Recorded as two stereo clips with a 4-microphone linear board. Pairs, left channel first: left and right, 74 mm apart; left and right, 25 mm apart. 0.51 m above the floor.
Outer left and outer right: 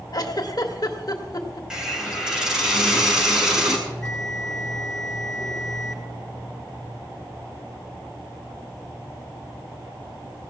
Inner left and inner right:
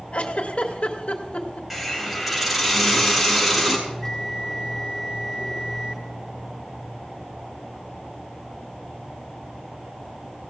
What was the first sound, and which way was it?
A giggle, 55° left (ahead or behind).